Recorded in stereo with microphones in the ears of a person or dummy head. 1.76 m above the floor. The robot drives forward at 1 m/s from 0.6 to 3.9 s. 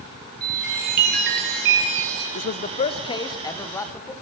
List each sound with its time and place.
0.4 s a chime: 50° right (ahead or behind), 4 m; by 2.2 s 70° right (ahead or behind), 3 m
2.4 s a man speaking: 60° left (ahead or behind), 0.7 m; by 4.1 s 15° left (ahead or behind), 2.0 m